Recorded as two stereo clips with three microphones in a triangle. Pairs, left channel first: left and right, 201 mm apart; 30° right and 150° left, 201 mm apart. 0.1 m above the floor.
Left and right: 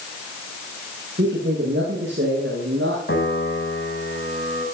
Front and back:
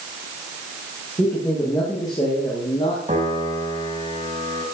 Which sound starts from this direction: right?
A man speaking, at 1.2 s.